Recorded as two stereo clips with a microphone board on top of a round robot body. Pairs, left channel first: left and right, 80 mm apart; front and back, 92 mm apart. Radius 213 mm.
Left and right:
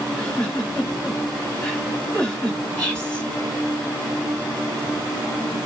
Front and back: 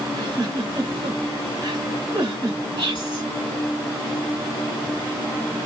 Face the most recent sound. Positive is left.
turn(degrees=165)